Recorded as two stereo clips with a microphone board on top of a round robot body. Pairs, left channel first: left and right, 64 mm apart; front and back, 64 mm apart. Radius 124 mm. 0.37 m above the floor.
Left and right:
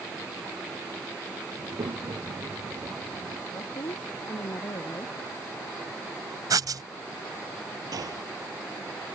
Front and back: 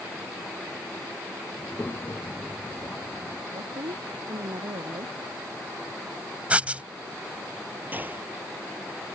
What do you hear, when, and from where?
1.6 s a child speaking: 65° right
3.5 s a woman speaking: 145° left
6.5 s writing: 110° right
7.9 s a gunshot: 120° right